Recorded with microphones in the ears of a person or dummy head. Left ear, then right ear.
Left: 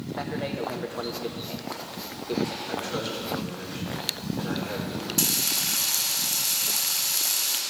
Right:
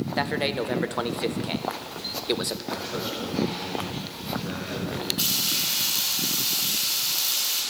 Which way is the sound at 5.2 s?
45° left (ahead or behind).